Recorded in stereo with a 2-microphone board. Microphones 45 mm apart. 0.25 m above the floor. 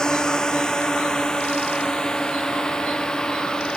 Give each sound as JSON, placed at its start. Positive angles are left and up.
{"t": 0.0, "sound": "a drone", "side_deg": 15}